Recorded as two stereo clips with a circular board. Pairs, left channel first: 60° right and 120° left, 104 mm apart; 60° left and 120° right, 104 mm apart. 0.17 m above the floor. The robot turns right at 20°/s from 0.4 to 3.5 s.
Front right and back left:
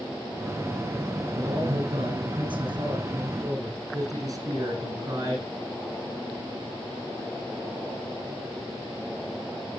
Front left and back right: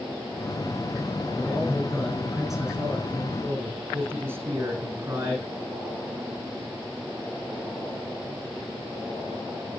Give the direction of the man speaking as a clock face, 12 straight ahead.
8 o'clock.